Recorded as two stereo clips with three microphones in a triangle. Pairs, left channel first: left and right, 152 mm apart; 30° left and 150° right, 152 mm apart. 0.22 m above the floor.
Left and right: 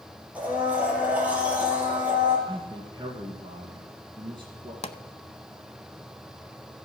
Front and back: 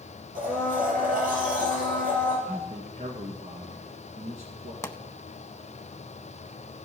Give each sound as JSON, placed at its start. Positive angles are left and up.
{"t": 0.3, "sound": "a blender", "azimuth_deg": -170, "distance_m": 5.5}
{"t": 2.5, "sound": "a man speaking", "azimuth_deg": -140, "distance_m": 1.8}
{"t": 4.8, "sound": "a pop", "azimuth_deg": 95, "distance_m": 0.7}